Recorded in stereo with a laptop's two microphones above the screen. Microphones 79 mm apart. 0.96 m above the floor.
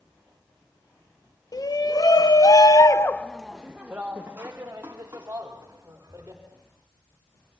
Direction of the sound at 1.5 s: 50° left (ahead or behind).